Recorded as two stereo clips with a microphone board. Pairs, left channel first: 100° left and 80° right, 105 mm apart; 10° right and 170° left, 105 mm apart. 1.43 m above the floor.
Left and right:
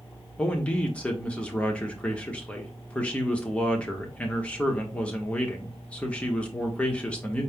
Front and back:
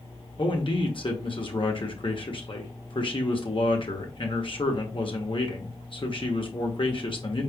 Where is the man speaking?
20° left, 1.3 m.